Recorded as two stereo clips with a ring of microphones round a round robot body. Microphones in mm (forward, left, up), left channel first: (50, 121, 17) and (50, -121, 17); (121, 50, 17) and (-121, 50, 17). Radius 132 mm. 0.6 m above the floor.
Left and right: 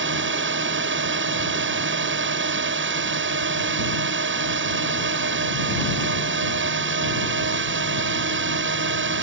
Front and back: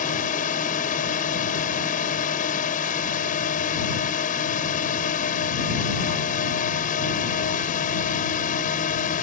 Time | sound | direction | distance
0.0 | a drone | 60° right | ?